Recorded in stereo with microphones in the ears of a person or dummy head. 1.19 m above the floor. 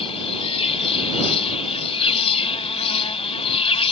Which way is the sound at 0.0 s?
35° left (ahead or behind).